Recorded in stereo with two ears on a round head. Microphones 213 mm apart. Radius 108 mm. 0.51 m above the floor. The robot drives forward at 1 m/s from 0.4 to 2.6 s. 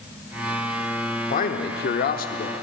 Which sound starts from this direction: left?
A man speaking, at 1.3 s.